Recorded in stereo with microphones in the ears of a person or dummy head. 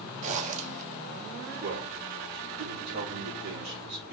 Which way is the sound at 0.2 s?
40° right (ahead or behind).